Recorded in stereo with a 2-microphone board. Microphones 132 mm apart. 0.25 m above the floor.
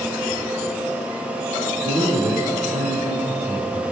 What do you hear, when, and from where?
1.8 s a man speaking: 55° right (ahead or behind), 7 m